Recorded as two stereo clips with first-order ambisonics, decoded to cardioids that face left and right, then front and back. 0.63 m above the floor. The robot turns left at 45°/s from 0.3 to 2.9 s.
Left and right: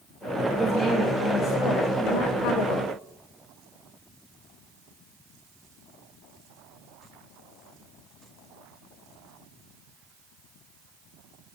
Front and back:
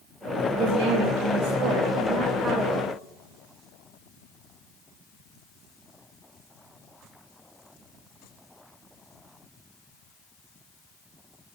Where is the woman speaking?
170° right, 3 m; by 2.9 s 85° left, 3 m.